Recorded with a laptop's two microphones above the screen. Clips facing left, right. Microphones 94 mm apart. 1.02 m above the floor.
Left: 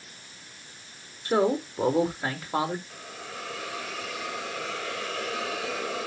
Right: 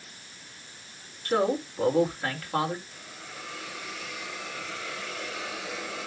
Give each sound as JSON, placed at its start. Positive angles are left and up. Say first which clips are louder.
{"t": 1.2, "sound": "a man speaking", "louder": "left 2 dB", "side_deg": 15, "distance_m": 4.0}
{"t": 2.9, "sound": "a hiss", "louder": "left 4 dB", "side_deg": 75, "distance_m": 3.5}